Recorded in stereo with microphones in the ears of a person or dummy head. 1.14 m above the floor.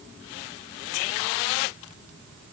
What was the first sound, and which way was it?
Only background noise.